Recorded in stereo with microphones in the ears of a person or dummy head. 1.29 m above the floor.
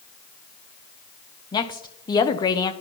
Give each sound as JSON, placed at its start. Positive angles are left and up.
{"t": 1.5, "sound": "a woman speaking", "side_deg": 20, "distance_m": 0.6}